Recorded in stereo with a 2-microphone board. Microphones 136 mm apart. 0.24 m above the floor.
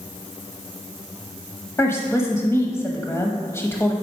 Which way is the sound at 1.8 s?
20° left (ahead or behind).